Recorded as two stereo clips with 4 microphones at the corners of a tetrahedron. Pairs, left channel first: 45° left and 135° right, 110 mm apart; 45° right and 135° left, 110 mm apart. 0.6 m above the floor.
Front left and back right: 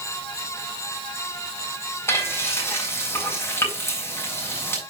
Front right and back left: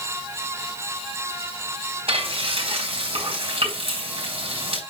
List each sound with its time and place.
2.1 s frying: 110° left, 4 m